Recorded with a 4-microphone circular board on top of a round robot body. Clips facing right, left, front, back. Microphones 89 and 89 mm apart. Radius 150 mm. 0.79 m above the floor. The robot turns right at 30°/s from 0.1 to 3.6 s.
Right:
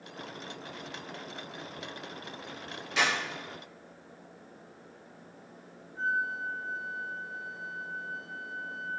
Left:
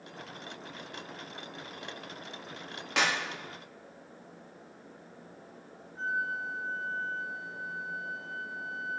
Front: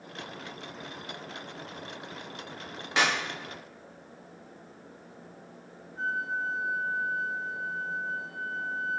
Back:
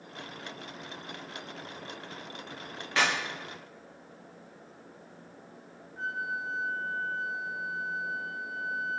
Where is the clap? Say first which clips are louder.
Even, front 1 dB; 70° left, 2 m; by 3.1 s 75° left, 2 m.